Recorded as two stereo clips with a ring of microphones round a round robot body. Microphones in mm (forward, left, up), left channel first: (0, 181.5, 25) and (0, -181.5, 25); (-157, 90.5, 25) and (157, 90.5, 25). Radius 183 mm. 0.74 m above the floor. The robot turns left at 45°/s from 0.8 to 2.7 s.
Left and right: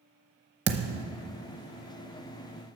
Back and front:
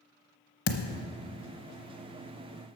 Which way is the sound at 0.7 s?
140° right.